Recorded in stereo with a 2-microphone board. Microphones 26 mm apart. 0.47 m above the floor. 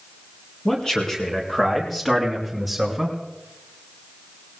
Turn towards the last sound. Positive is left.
turn(degrees=-5)  # may be behind; listen again after turning